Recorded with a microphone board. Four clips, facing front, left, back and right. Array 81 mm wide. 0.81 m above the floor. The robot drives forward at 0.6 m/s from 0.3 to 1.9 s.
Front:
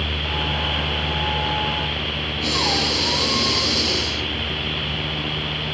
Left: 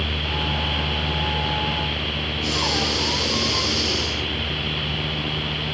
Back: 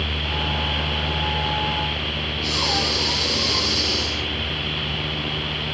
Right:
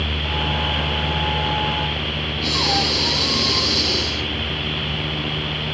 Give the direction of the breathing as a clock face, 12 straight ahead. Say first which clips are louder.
Right 3 dB, front 2 dB; 1 o'clock.